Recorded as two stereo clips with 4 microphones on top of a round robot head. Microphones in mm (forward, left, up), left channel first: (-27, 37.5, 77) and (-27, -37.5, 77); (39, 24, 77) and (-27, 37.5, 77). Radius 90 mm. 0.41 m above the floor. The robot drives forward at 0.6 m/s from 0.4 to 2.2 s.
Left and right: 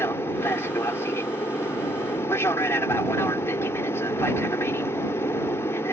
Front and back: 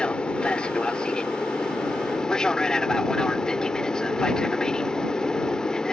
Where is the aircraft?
55° left; by 5.9 s 60° left.